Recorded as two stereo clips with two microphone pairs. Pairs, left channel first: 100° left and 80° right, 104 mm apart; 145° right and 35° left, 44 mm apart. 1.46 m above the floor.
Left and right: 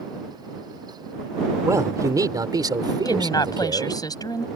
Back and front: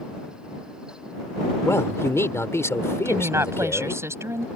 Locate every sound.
1.6 s a man speaking: 140° right; by 4.0 s 125° right
3.0 s a woman speaking: 45° left